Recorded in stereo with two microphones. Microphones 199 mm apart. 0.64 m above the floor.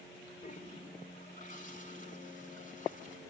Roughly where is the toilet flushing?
Left.